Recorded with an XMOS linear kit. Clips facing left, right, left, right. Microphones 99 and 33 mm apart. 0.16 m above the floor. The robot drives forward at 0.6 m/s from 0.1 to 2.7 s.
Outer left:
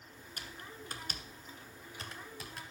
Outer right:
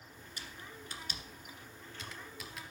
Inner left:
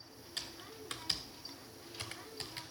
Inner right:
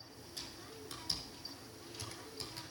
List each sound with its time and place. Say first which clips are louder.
0.4 s typing on a keyboard: outer left 1 dB, inner left 4 dB; 55° left (ahead or behind), 1.2 m; by 2.6 s 30° left (ahead or behind), 1.9 m